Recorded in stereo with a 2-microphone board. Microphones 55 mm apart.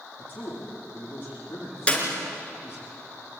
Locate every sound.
0.2 s a man speaking: 35° left (ahead or behind), 10 m
1.9 s a clap: 20° left (ahead or behind), 4 m